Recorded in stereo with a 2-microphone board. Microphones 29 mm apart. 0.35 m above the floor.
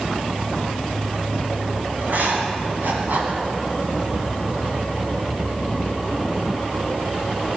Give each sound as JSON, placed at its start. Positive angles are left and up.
{"t": 2.0, "sound": "writing", "side_deg": -70, "distance_m": 2.0}